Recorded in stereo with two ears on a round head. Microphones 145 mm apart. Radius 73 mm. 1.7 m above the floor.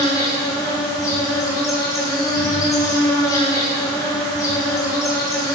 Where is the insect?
20° left (ahead or behind), 3 m.